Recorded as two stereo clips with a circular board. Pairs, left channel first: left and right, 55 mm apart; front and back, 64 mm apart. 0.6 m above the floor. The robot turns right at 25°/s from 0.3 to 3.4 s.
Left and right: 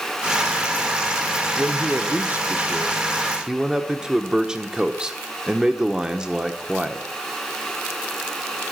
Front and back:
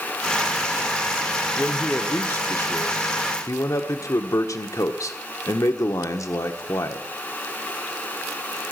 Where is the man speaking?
65° right, 1.2 m; by 7.1 s 15° right, 1.2 m.